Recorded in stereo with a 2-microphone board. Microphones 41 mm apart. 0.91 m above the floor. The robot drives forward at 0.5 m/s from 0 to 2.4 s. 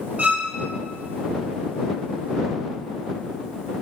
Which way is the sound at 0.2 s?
35° right (ahead or behind).